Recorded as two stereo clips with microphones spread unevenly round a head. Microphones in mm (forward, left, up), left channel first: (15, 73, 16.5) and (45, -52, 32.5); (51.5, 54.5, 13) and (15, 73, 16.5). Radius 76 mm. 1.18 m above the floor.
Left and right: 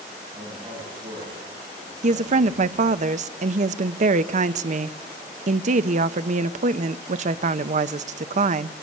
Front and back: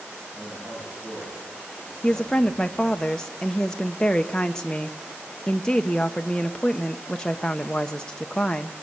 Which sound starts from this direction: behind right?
A man speaking, at 0.3 s.